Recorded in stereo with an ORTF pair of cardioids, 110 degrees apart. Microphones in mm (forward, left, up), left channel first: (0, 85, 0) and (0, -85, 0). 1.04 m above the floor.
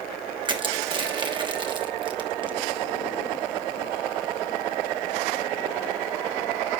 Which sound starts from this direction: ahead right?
Crushing, at 0.5 s.